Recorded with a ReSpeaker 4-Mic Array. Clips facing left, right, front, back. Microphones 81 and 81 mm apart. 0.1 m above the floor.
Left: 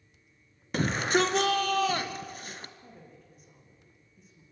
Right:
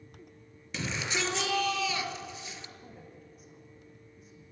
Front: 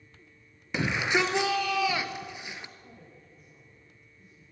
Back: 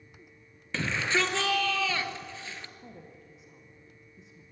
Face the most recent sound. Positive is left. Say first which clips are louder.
# right 2 dB, back 3 dB
turn(degrees=180)